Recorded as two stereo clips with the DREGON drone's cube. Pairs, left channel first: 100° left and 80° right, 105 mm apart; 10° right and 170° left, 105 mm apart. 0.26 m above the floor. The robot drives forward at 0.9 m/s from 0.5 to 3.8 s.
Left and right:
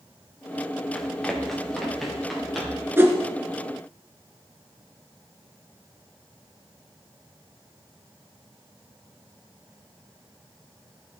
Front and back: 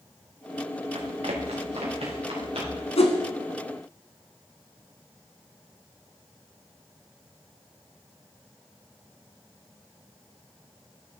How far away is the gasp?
I don't hear a gasp.